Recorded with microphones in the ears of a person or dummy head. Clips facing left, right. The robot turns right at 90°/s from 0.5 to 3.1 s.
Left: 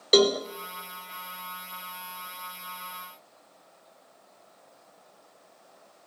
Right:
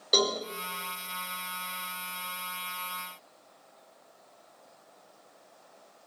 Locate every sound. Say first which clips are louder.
0.1 s a cowbell: left 8 dB; 40° left (ahead or behind), 1.0 m